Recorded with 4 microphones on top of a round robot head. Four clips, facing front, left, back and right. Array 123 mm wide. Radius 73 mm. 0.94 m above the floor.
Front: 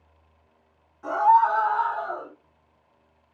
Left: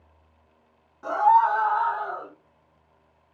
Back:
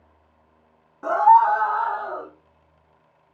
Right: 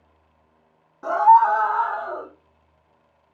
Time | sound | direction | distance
1.0 | a scream | 155° right | 1.1 m